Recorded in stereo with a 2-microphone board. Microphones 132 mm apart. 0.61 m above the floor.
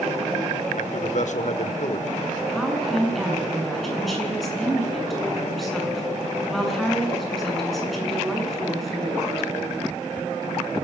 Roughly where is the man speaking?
Left.